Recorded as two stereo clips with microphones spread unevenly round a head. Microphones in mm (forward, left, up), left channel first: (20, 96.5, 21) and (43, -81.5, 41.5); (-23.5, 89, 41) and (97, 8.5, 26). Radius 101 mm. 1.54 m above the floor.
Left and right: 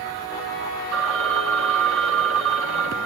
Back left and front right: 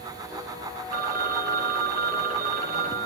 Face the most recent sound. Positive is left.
turn(degrees=-80)